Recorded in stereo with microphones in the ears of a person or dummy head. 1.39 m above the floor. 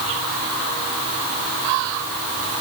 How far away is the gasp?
I don't hear a gasp.